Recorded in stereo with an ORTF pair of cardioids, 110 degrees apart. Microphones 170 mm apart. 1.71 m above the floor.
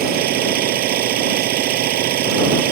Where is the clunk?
No clunk in this recording.